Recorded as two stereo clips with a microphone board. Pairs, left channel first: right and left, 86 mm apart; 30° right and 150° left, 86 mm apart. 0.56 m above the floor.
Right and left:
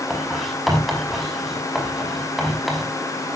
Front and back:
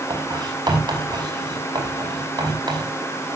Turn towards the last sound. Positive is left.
turn(degrees=180)